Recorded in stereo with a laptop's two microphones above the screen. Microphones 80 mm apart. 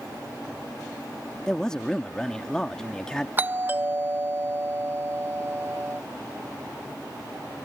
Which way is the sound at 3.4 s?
25° right (ahead or behind).